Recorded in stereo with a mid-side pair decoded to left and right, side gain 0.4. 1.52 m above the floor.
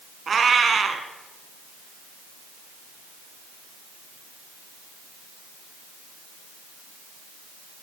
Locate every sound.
0.3 s a cat meowing: 45° right, 4 m